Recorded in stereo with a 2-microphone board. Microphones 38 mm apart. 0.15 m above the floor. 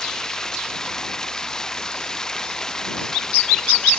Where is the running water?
15° left (ahead or behind).